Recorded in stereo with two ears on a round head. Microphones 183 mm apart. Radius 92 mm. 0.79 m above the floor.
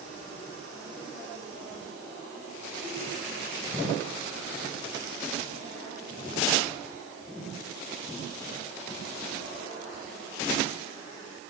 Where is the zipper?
I don't hear a zipper.